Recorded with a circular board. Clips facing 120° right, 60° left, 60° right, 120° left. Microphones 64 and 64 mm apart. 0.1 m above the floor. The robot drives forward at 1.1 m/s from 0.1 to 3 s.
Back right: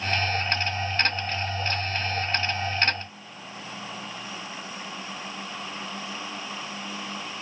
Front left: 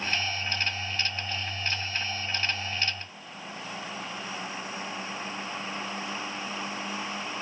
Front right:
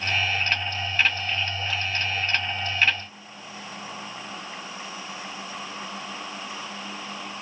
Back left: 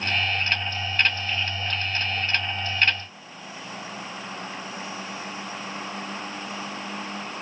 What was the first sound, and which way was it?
Only background noise.